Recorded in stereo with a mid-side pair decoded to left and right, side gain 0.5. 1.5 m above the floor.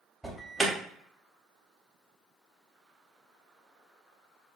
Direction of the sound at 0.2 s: 10° right.